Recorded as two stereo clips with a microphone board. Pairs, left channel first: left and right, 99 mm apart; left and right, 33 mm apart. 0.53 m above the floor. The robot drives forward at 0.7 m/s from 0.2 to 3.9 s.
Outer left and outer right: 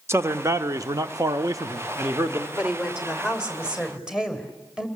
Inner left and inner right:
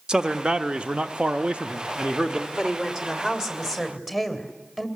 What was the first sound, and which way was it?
A man speaking, 25° right (ahead or behind).